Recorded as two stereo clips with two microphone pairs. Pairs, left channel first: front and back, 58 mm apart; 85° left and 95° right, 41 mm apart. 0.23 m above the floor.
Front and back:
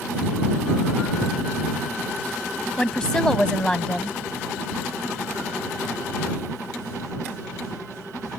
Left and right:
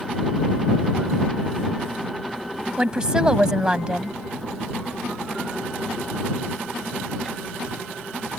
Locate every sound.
2.8 s a woman speaking: 50° right